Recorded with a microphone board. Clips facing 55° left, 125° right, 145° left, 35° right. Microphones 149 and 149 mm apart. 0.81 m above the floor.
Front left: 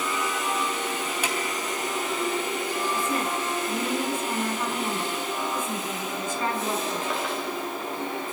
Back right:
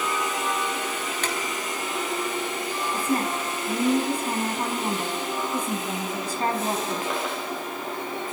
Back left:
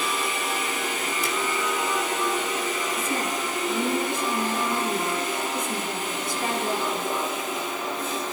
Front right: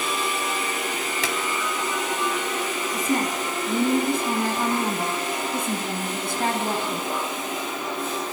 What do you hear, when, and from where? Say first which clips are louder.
1.2 s a drawer: back right 1 dB, front right 3 dB; 25° right, 3.5 m
2.9 s a woman speaking: back right 2 dB, front right 3 dB; 70° right, 6.5 m